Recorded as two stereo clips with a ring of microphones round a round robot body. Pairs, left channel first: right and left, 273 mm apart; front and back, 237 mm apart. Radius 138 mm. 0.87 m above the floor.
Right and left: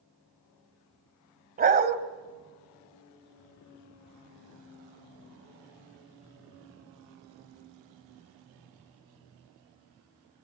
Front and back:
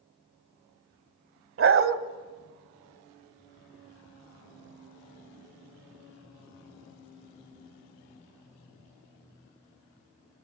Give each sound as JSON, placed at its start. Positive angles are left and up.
{"t": 1.6, "sound": "a dog barking", "azimuth_deg": 150, "distance_m": 1.7}